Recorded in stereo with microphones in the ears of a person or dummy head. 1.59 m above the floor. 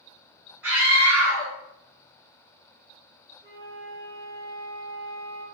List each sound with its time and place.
0.6 s a scream: 10° right (ahead or behind), 1.9 m
3.4 s a flute: 35° right (ahead or behind), 1.2 m